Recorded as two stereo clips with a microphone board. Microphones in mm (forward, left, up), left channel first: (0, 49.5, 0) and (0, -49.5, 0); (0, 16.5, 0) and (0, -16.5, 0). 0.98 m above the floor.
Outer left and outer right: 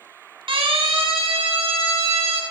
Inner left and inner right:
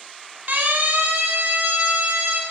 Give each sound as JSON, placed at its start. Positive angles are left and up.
{"t": 0.5, "sound": "a siren", "side_deg": -65, "distance_m": 4.0}